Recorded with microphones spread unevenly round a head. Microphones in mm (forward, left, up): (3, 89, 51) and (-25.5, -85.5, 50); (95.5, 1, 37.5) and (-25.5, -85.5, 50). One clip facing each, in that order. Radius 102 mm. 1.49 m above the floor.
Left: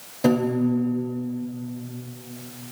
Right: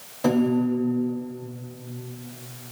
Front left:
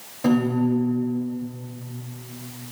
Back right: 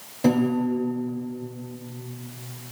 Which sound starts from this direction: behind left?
A piano, at 0.2 s.